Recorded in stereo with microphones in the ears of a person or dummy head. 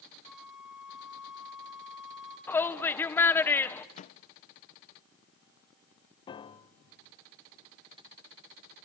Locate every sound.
0.2 s a flute: centre (ahead or behind), 1.8 m
2.5 s a shout: 10° left (ahead or behind), 0.9 m
4.0 s a microwave: 40° left (ahead or behind), 0.6 m
6.3 s a piano: 30° left (ahead or behind), 0.7 m